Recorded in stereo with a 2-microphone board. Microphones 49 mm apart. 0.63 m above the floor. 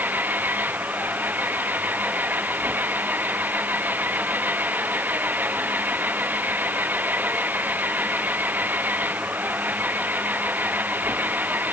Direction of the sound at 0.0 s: 40° right (ahead or behind).